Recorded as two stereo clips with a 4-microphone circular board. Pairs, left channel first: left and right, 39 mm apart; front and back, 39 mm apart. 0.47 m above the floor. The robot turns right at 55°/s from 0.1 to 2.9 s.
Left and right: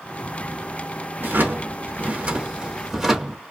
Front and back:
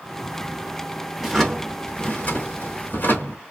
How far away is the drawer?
About 1.0 m.